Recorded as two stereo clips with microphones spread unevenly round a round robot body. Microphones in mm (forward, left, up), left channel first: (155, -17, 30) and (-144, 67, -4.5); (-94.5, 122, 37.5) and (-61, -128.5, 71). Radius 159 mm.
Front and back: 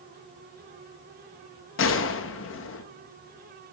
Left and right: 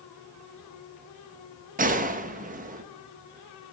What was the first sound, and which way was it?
A gunshot, 35° right.